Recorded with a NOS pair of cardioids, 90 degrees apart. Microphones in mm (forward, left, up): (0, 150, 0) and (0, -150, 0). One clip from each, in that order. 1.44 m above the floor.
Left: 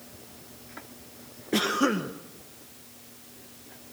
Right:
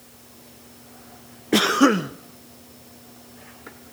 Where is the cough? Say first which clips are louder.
Right 7 dB; 40° right, 1.1 m.